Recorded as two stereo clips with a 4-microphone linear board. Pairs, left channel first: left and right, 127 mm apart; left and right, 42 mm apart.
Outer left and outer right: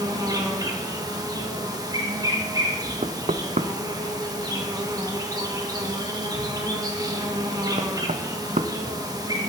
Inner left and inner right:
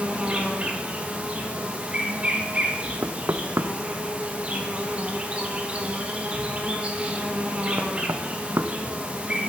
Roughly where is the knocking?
Right.